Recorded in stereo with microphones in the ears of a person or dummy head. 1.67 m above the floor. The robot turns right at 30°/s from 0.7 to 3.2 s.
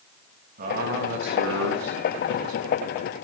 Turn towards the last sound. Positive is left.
turn(degrees=-65)